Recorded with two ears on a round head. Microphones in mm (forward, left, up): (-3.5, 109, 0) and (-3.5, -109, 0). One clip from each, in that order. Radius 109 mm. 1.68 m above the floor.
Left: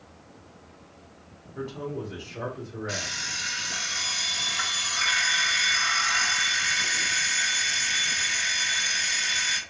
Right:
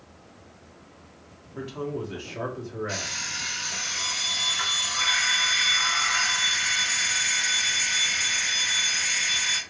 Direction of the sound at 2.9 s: 10° left (ahead or behind).